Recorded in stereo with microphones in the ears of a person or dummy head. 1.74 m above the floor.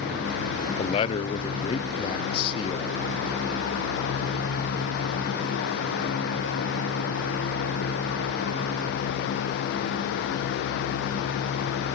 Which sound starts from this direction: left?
A man speaking, at 0.8 s.